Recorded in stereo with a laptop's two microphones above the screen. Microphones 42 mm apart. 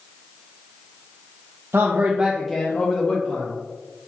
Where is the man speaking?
65° right (ahead or behind), 0.7 m; by 3.6 s 50° left (ahead or behind), 1.6 m.